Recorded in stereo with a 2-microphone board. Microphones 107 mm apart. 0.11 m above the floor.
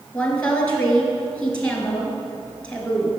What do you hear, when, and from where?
0.1 s a woman speaking: 10° left (ahead or behind), 1.5 m